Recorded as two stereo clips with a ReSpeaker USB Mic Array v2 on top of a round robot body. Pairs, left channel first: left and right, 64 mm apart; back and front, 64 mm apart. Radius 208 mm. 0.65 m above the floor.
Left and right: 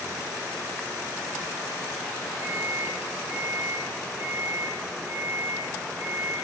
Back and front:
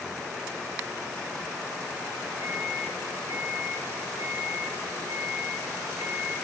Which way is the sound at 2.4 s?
115° right.